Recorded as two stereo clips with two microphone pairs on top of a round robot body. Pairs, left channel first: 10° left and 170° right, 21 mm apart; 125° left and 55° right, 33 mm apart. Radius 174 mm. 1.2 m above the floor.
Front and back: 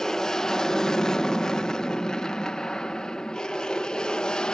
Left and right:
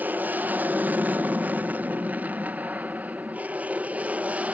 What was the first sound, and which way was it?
An aircraft, 35° right.